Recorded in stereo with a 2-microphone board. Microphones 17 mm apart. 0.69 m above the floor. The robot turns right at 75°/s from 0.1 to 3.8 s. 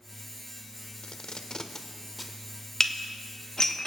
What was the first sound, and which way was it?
Tape being pulled, 75° left (ahead or behind).